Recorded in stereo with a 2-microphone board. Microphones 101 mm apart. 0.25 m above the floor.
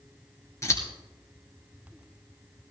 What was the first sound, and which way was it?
Scissors, 30° left (ahead or behind).